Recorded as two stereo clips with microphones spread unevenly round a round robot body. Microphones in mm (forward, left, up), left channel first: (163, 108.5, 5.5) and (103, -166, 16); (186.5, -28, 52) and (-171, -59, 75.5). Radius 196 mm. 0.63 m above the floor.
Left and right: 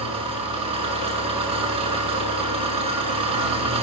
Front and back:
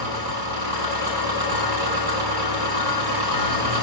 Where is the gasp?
I don't hear a gasp.